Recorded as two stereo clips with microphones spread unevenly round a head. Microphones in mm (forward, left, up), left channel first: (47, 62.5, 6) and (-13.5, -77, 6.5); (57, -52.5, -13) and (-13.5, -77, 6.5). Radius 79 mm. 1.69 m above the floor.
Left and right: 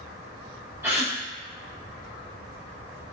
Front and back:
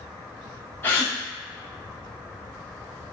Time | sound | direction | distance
0.8 | a gasp | 50° right | 1.5 m